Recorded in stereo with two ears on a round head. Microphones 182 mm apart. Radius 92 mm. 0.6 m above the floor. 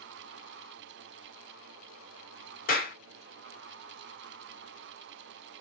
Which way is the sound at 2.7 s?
45° left (ahead or behind).